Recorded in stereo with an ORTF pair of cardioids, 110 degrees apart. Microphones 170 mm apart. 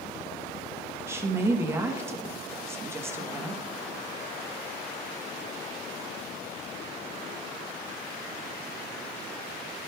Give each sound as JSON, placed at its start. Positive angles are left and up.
{"t": 1.1, "sound": "a woman speaking", "azimuth_deg": -15, "distance_m": 1.2}